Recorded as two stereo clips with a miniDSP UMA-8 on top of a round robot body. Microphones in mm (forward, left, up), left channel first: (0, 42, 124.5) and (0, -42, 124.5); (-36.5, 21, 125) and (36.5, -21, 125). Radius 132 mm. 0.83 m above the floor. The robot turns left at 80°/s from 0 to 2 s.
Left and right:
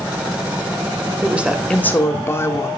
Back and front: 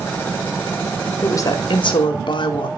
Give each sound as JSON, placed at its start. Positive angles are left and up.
{"t": 1.2, "sound": "a woman speaking", "azimuth_deg": -150, "distance_m": 1.7}